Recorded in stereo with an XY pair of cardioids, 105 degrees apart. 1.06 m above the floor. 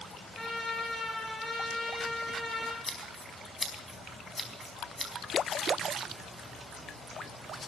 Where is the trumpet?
20° left, 9 m.